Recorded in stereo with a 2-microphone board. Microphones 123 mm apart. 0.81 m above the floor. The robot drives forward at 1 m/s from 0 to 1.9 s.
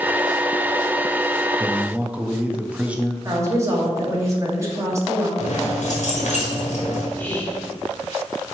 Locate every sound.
1.6 s a man speaking: 15° right (ahead or behind), 0.5 m; by 3.1 s 10° right (ahead or behind), 0.7 m
3.2 s a woman speaking: 25° right (ahead or behind), 1.6 m
5.4 s keys jangling: 70° left (ahead or behind), 1.5 m
7.2 s whispering: 15° left (ahead or behind), 1.9 m